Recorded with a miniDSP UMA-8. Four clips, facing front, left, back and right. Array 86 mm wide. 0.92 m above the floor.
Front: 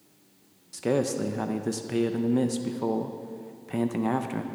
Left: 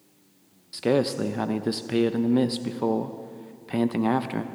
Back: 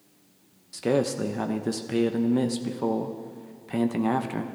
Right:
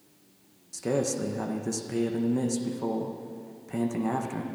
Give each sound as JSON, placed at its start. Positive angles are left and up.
{"t": 0.7, "sound": "a man speaking", "azimuth_deg": 95, "distance_m": 0.5}